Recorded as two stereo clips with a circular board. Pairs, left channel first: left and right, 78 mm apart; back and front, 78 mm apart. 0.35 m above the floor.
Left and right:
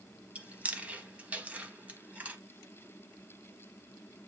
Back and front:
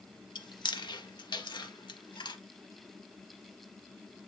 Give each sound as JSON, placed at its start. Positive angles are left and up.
{"t": 0.3, "sound": "chewing", "azimuth_deg": -160, "distance_m": 0.7}